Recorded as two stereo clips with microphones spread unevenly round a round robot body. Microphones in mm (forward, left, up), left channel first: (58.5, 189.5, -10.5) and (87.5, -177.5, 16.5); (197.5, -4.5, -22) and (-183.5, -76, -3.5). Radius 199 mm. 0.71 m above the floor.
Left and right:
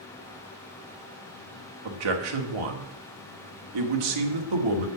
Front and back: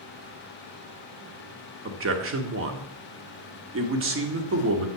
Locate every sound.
1.9 s a man speaking: 110° right, 1.6 m